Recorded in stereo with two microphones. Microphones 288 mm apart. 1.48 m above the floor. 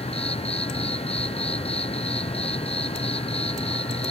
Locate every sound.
0.0 s an insect: 20° left (ahead or behind)